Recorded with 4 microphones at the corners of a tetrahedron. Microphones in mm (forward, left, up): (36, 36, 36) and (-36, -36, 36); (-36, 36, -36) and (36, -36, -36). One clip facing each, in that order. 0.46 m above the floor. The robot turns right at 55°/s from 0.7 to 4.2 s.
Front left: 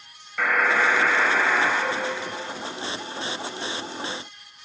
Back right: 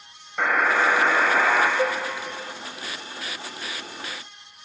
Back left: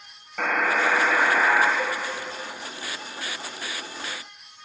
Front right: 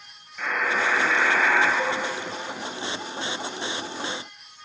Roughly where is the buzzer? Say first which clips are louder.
Back right 1 dB, back left 2 dB; behind left.